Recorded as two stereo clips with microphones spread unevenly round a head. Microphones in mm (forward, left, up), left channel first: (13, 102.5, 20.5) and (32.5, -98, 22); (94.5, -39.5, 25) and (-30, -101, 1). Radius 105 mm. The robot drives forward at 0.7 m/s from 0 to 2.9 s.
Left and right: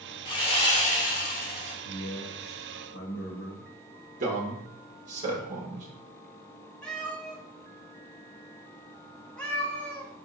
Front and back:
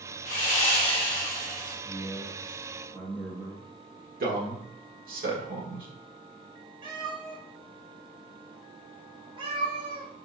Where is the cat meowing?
175° left, 0.7 m.